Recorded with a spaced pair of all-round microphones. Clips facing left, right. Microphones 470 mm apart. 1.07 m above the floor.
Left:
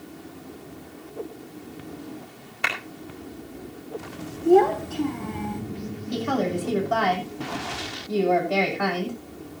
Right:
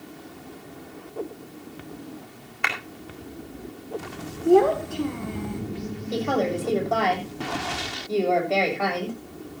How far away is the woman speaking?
About 7 m.